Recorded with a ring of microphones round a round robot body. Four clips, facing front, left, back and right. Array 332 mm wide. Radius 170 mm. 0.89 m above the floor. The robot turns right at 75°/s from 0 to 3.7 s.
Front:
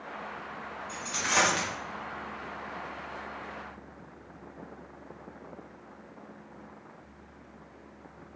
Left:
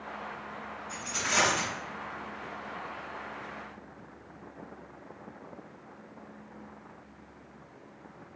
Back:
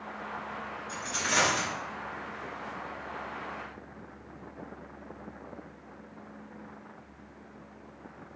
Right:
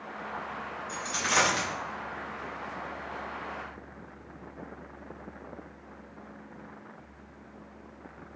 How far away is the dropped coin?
About 1.5 m.